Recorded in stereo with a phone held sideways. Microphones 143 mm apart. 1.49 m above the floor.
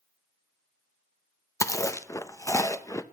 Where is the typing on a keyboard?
No typing on a keyboard in this recording.